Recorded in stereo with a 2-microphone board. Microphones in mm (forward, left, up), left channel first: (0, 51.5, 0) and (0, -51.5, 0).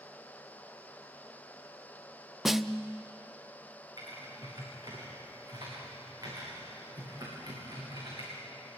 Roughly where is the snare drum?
Centre.